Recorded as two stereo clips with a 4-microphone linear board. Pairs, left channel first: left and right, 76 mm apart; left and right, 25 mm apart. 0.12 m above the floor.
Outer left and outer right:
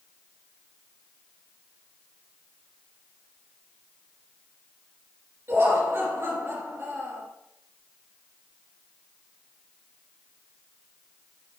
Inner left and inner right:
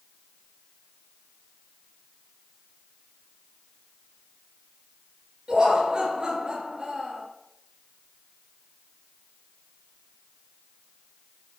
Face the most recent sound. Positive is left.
turn(degrees=-35)  # may be behind; listen again after turning